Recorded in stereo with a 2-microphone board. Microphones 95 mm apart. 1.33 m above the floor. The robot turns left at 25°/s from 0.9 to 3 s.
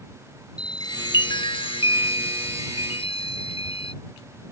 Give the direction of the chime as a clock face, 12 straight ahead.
8 o'clock.